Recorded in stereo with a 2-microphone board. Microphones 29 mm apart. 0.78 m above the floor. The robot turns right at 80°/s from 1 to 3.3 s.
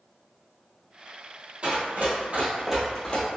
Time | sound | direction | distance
1.6 | running footsteps | 45° right (ahead or behind) | 1.5 m